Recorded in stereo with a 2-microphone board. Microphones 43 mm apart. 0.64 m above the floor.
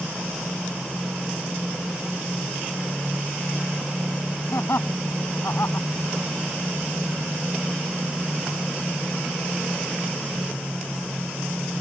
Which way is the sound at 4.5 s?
75° left (ahead or behind).